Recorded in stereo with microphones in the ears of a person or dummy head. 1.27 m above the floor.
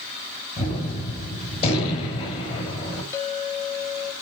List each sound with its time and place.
0.6 s a gunshot: 40° left (ahead or behind), 5.5 m
3.1 s a clink: 25° left (ahead or behind), 1.6 m